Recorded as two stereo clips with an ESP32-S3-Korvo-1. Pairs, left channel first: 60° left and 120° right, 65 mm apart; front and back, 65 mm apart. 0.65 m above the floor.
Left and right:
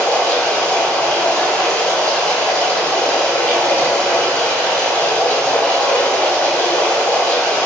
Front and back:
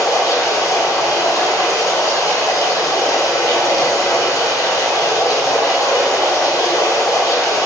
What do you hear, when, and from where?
0.0 s running water: 5° right, 1.0 m